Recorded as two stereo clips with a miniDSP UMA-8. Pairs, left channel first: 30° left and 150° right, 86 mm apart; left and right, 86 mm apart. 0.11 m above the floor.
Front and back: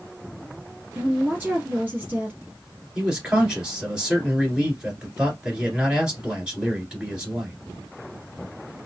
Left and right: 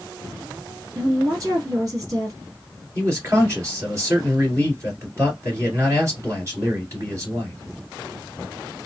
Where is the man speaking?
80° right, 1.9 m.